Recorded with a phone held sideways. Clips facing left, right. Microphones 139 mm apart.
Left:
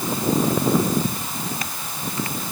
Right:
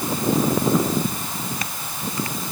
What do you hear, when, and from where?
Only background noise.